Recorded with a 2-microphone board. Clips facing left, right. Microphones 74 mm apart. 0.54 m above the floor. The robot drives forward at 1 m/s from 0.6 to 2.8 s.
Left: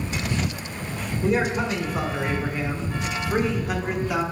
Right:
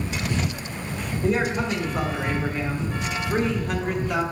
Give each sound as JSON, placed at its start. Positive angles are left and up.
{"t": 1.2, "sound": "a man speaking", "side_deg": 5, "distance_m": 2.5}